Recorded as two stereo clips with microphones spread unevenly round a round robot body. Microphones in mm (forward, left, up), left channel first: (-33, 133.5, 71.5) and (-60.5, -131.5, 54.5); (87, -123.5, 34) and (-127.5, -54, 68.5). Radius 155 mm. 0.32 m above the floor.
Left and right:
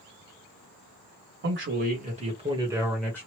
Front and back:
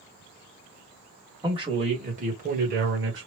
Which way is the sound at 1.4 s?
125° right.